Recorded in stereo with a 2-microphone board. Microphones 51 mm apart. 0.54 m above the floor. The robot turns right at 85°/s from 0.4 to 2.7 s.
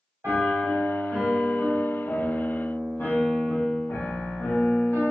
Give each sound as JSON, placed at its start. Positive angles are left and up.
{"t": 0.2, "sound": "a piano", "azimuth_deg": -110, "distance_m": 1.6}